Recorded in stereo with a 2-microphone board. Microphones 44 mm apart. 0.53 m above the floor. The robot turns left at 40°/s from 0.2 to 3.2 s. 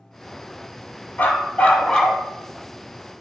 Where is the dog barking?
50° left, 1.2 m; by 2.2 s 10° left, 1.2 m.